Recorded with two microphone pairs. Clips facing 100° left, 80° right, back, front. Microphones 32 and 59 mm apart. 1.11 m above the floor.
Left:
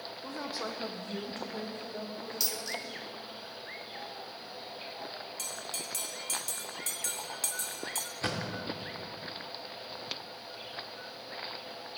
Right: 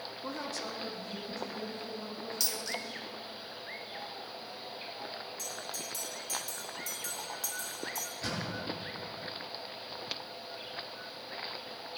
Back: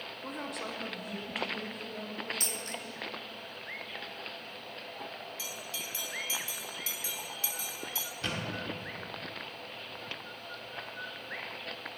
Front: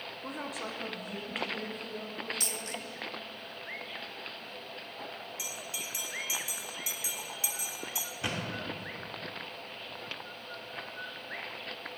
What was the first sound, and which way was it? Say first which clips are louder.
A woman speaking: left 1 dB, even; 85° right.